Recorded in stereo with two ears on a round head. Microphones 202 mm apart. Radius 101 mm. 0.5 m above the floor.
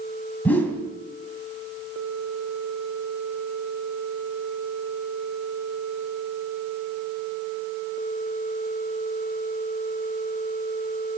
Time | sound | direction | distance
0.5 | a whoosh | 5° left (ahead or behind) | 3 m